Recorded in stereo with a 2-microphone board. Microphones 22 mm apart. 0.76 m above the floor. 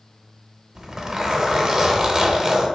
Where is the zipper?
20° right (ahead or behind), 0.6 m.